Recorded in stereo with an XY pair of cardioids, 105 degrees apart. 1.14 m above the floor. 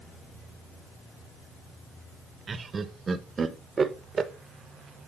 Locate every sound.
2.5 s laughter: 35° right, 1.1 m